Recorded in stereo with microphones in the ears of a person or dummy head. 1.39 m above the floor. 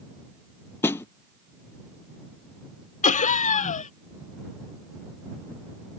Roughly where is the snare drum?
Centre.